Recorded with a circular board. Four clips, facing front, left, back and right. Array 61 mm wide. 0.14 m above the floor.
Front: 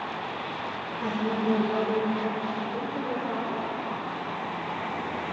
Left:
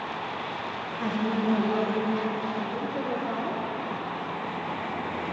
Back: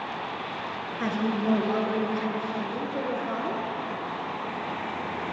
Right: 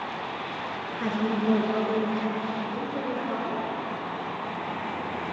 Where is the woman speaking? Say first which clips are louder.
Right 1 dB, back 1 dB; 165° right, 1.5 m.